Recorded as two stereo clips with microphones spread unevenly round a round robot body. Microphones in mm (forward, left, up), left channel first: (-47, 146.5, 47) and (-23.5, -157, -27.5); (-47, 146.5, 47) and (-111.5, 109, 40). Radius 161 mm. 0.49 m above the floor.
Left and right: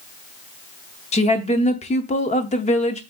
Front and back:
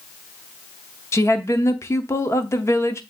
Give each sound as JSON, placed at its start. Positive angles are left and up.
{"t": 1.1, "sound": "a woman speaking", "azimuth_deg": 20, "distance_m": 0.8}